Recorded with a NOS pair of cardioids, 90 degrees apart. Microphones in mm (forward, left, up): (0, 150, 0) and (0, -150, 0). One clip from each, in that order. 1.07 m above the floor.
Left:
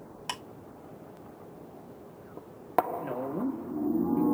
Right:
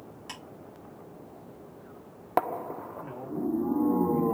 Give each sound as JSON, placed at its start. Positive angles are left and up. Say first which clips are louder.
{"t": 0.3, "sound": "ticking", "louder": "left 7 dB", "azimuth_deg": 60, "distance_m": 2.0}
{"t": 3.0, "sound": "a woman speaking", "louder": "left 2 dB", "azimuth_deg": 40, "distance_m": 1.5}